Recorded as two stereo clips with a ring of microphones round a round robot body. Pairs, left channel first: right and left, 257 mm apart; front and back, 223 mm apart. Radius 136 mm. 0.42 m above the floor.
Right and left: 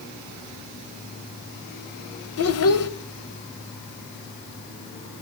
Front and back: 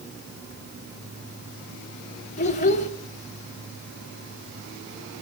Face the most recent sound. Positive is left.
turn(degrees=-60)